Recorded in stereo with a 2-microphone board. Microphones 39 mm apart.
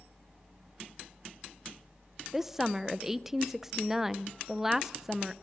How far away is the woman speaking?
About 0.5 m.